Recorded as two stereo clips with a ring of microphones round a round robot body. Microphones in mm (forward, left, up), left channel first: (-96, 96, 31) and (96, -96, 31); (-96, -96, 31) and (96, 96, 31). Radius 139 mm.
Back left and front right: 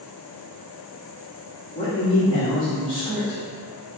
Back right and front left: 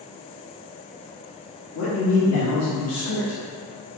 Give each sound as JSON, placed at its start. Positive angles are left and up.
{"t": 1.8, "sound": "a man speaking", "azimuth_deg": -155, "distance_m": 1.2}